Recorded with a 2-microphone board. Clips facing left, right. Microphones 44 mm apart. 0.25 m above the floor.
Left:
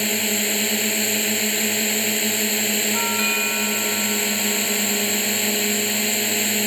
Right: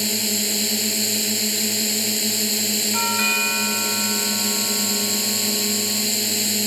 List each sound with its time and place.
0.0 s a drone: 30° left (ahead or behind)
2.9 s a doorbell: 10° right (ahead or behind)